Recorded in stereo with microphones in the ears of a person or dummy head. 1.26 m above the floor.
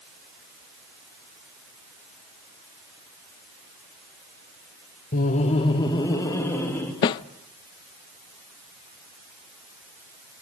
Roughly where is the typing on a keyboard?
No typing on a keyboard in this recording.